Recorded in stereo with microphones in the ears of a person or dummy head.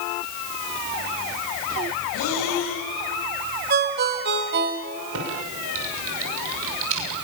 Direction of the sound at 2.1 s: 80° left.